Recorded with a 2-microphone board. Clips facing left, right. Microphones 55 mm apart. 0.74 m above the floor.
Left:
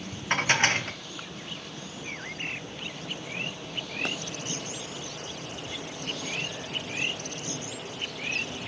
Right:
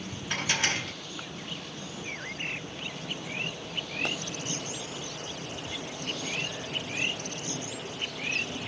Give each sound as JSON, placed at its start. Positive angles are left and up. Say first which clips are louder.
{"t": 0.3, "sound": "dishes clattering", "louder": "left 6 dB", "side_deg": 45, "distance_m": 0.8}